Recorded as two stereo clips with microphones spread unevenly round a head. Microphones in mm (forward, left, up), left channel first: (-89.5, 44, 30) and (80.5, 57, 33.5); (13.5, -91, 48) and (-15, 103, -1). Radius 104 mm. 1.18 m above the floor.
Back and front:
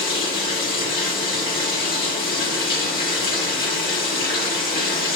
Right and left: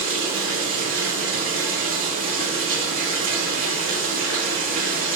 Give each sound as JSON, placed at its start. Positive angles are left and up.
{"t": 0.0, "sound": "running water", "azimuth_deg": 145, "distance_m": 1.9}